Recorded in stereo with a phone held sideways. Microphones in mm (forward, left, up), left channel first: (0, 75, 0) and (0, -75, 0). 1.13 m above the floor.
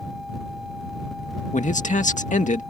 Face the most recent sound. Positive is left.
turn(degrees=55)  # may be behind; listen again after turning